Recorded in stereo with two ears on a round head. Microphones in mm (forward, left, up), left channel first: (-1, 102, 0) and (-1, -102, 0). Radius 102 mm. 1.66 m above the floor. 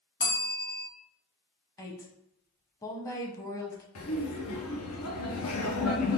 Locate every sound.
0.2 s a bell: 20° left (ahead or behind), 1.1 m
1.8 s a woman speaking: 15° left (ahead or behind), 0.7 m
4.0 s laughter: 75° left (ahead or behind), 1.1 m